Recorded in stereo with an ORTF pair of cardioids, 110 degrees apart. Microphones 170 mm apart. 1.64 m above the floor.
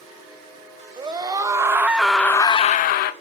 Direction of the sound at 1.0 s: 25° right.